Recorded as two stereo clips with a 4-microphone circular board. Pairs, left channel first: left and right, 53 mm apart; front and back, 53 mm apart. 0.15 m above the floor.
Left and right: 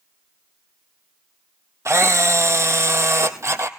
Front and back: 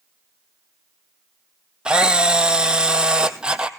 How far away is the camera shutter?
About 1.2 m.